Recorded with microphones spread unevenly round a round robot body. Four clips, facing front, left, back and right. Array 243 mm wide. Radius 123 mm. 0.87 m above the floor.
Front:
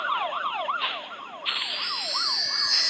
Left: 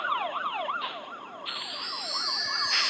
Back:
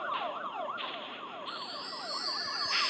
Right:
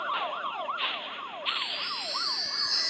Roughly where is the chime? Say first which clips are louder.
Right 3 dB, front 6 dB; ahead right.